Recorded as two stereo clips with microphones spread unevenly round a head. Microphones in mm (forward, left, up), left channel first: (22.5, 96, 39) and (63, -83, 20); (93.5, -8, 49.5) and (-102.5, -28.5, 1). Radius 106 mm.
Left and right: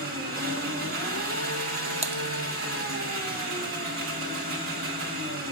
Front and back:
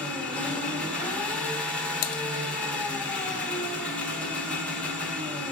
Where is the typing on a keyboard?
20° right, 0.5 m.